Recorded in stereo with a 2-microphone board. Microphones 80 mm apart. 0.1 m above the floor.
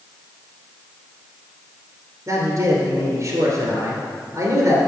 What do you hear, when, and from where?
2.3 s a man speaking: 40° right (ahead or behind), 1.8 m